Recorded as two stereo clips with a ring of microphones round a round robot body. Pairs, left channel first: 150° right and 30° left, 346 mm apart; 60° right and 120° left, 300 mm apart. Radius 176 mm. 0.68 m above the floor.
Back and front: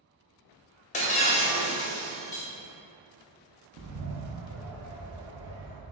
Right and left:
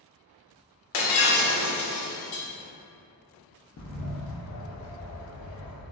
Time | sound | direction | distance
0.9 | breaking glass | 80° right | 0.6 m
3.8 | a bird | 15° right | 0.6 m